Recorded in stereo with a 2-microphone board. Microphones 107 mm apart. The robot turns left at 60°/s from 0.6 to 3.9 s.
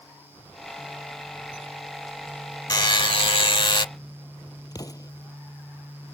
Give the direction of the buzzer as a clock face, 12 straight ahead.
8 o'clock.